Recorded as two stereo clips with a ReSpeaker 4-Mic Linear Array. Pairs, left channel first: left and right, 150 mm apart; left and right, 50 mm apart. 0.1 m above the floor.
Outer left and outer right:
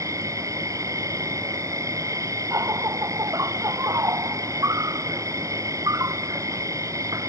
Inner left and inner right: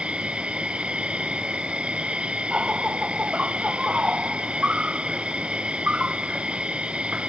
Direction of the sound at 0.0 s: 20° right (ahead or behind).